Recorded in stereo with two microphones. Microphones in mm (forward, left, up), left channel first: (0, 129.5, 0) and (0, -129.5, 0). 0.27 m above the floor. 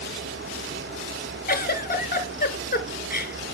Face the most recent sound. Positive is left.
turn(degrees=35)  # may be behind; listen again after turning